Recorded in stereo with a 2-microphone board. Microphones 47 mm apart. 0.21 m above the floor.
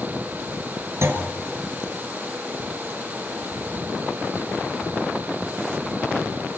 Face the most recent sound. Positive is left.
turn(degrees=-65)  # may be behind; listen again after turning